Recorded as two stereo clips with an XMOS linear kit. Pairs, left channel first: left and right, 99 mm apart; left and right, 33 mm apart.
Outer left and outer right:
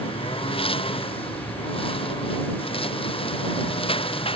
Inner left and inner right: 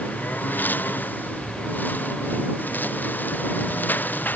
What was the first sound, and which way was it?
A lawn mower, 70° left (ahead or behind).